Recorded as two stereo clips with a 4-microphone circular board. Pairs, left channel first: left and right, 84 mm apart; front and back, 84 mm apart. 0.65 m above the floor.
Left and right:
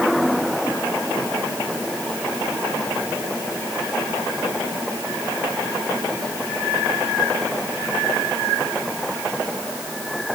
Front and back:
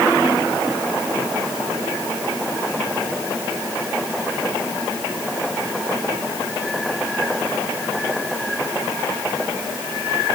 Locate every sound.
Only background noise.